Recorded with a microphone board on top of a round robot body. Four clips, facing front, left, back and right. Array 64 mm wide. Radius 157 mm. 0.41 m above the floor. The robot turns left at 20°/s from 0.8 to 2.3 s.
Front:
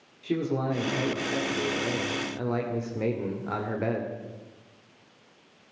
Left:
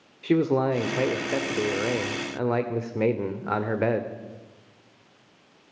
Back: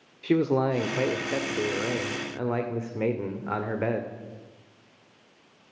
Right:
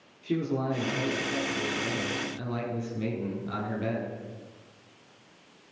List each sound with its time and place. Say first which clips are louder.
0.2 s a man speaking: left 7 dB, back 5 dB; 135° left, 2 m; by 4.1 s 105° left, 2 m